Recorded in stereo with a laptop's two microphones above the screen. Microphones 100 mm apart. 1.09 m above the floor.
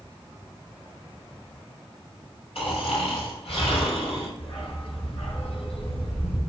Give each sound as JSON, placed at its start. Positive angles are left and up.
{"t": 2.5, "sound": "snoring", "side_deg": 70, "distance_m": 4.0}
{"t": 4.4, "sound": "a dog barking", "side_deg": 65, "distance_m": 4.0}